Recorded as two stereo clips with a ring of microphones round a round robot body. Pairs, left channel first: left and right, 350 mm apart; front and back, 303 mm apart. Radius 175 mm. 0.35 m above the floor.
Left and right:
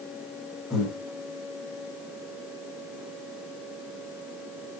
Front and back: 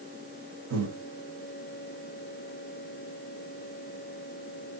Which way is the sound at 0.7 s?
Straight behind.